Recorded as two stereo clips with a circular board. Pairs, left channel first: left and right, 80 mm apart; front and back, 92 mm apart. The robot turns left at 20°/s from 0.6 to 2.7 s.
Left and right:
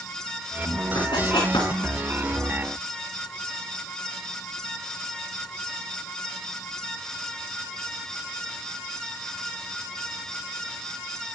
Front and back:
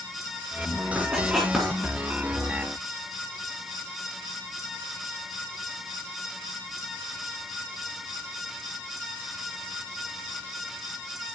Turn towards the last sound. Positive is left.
turn(degrees=70)